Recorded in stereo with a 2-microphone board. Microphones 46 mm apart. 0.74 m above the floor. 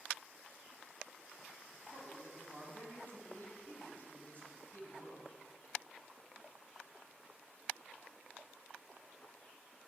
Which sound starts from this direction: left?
A man speaking, at 1.7 s.